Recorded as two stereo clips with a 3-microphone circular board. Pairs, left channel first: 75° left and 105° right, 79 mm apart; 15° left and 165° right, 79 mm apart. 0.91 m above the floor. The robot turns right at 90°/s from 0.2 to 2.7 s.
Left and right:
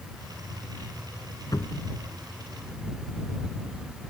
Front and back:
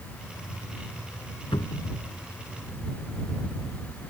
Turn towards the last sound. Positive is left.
turn(degrees=140)